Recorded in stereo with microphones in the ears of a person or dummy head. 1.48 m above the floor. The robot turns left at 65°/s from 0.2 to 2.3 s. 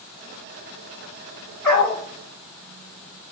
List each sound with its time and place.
1.6 s a dog barking: 10° left (ahead or behind), 1.2 m; by 2.0 s 30° left (ahead or behind), 1.2 m